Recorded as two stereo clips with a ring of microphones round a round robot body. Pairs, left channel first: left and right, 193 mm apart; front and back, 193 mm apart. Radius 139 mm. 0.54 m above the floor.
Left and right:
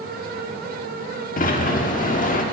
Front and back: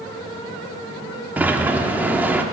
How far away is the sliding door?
About 1.2 m.